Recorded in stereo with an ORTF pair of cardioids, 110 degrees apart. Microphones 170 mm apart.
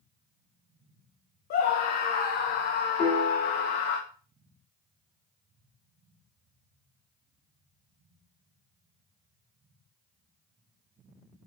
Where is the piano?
50° left, 4.5 m.